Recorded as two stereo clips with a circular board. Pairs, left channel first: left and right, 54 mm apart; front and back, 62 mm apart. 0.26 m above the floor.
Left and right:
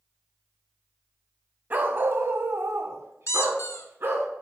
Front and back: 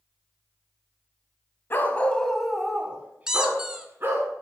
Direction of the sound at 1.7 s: 45° right.